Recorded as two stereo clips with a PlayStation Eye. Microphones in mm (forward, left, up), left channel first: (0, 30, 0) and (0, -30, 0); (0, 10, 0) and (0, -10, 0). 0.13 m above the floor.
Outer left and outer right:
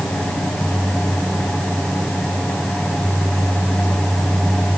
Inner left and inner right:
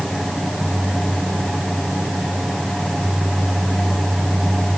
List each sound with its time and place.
Only background noise.